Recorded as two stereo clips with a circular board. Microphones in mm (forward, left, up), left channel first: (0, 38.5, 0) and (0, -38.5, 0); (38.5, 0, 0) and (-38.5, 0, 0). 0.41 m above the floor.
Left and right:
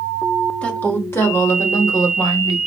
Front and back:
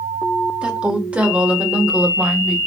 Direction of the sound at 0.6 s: 135° left.